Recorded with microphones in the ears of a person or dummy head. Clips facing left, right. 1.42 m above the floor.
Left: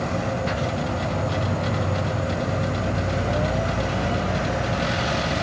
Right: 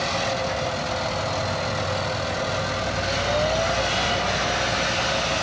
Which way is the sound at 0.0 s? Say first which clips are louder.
Even; 30° left (ahead or behind).